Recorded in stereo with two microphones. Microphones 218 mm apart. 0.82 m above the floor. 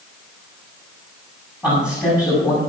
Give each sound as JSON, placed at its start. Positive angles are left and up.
{"t": 1.6, "sound": "a man speaking", "side_deg": 15, "distance_m": 6.5}